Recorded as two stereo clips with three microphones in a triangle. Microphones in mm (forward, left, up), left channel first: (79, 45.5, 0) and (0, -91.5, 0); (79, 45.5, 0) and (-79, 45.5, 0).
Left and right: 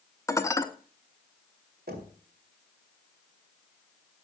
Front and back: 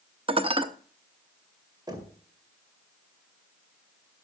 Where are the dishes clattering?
130° left, 0.8 m.